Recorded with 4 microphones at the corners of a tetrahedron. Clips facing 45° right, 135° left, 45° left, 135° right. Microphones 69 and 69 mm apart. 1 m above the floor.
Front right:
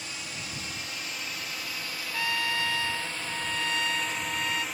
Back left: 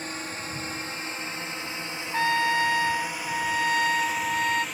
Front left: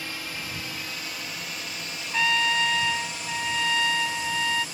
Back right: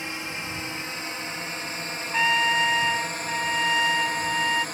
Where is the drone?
165° left; by 4.8 s 130° right.